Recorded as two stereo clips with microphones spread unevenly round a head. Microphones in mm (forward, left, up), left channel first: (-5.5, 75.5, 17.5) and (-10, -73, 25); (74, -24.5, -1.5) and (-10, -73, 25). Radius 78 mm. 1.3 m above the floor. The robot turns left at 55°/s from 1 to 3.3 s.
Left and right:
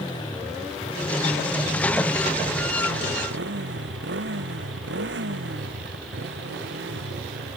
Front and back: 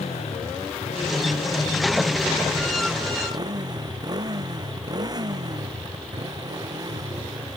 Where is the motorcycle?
25° left; by 7.6 s 105° right.